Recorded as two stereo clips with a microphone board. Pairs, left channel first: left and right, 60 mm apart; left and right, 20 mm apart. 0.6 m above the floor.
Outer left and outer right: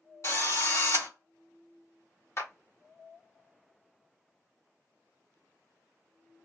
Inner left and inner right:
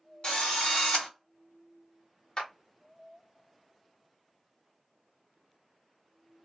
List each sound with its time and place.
0.2 s a drill: 55° left (ahead or behind), 2 m
2.4 s a clap: 45° left (ahead or behind), 1.2 m